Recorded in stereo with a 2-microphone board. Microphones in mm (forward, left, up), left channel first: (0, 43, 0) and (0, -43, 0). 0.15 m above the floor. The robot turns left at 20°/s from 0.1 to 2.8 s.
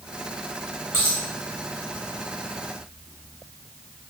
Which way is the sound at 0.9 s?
30° right (ahead or behind).